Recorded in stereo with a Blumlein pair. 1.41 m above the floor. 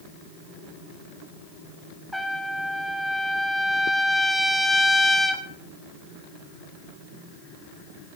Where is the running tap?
No running tap in this recording.